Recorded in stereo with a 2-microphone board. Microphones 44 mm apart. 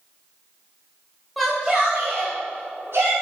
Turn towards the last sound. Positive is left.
turn(degrees=-55)  # may be behind; listen again after turning